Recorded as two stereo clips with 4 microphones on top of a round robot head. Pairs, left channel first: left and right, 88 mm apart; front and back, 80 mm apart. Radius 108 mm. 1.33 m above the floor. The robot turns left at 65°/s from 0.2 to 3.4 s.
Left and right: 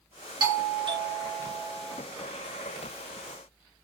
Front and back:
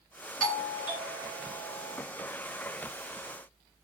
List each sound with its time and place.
0.4 s a doorbell: 80° right, 1.3 m; by 2.0 s 175° left, 1.3 m